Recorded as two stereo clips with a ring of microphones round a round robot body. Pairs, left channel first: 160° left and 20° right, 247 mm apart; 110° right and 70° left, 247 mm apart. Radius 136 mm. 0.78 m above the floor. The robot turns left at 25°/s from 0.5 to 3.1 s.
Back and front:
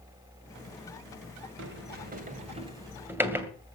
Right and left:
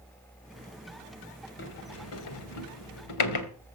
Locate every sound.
1.6 s a sliding door: 65° right, 2 m; by 3.5 s 105° right, 2 m